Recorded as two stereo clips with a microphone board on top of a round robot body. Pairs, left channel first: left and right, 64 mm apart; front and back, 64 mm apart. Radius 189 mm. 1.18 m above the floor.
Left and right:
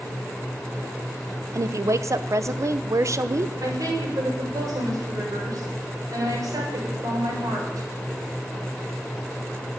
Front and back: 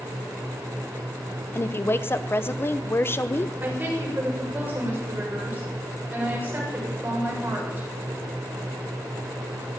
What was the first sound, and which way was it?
A woman speaking, 55° right.